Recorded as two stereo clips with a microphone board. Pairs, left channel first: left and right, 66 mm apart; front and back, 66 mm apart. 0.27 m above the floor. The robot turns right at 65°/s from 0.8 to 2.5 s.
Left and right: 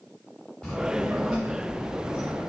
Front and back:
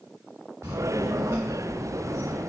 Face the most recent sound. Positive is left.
turn(degrees=-80)